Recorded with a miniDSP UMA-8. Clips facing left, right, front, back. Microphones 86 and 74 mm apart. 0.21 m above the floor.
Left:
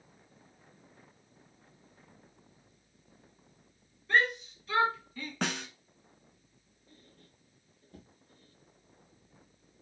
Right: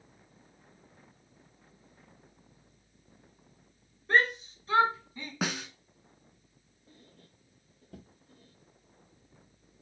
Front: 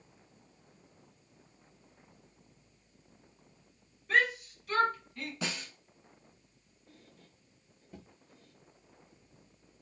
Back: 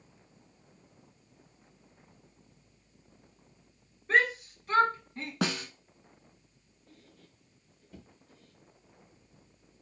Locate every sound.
4.1 s a shout: 130° right, 2.5 m; by 5.3 s 150° right, 1.4 m
5.4 s a snare drum: 175° right, 0.7 m
6.9 s a squeak: 80° right, 1.6 m